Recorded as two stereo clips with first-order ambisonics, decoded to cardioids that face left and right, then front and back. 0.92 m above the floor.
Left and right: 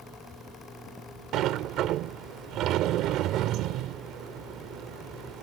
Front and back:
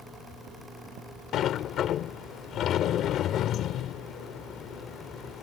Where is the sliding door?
50° right.